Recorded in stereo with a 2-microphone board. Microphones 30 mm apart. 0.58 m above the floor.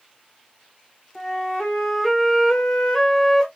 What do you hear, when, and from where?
1.1 s a flute: 10° left (ahead or behind), 1.9 m